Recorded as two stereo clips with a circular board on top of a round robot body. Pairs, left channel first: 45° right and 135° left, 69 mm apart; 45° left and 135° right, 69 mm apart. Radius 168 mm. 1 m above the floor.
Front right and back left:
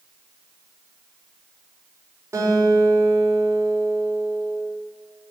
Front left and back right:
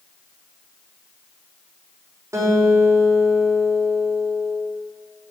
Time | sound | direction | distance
2.3 | a guitar | straight behind | 5 m